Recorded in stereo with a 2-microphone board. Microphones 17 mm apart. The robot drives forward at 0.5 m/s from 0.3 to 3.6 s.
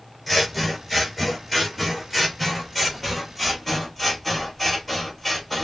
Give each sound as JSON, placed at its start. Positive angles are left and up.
{"t": 0.3, "sound": "scissors", "side_deg": 5, "distance_m": 3.0}